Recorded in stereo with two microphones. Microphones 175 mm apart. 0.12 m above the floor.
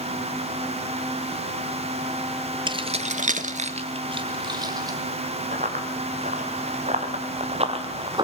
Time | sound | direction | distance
2.7 | keys jangling | 25° right (ahead or behind) | 1.3 m
5.5 | running footsteps | 50° right (ahead or behind) | 5 m